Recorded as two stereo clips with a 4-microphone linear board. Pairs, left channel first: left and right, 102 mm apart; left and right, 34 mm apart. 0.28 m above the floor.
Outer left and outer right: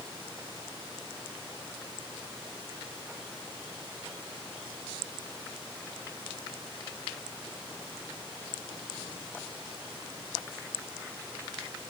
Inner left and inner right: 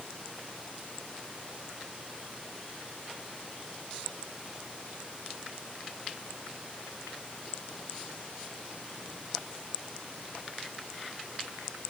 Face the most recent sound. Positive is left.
No sound to turn to.